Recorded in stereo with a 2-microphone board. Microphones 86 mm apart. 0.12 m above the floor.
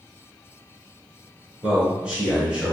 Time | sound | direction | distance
1.6 | a man speaking | 15° right (ahead or behind) | 1.1 m